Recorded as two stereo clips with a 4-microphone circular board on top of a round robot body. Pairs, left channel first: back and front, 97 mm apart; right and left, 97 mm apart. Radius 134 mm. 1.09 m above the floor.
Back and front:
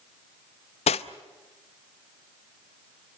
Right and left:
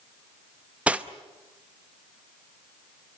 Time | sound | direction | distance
0.9 | cutlery clinking | 165° left | 0.7 m